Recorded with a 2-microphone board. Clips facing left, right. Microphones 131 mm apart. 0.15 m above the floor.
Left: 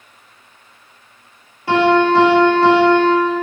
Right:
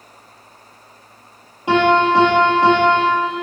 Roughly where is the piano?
Centre.